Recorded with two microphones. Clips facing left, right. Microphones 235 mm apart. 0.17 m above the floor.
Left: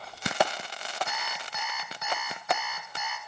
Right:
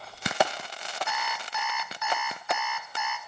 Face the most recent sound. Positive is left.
turn(degrees=40)  # may be behind; listen again after turning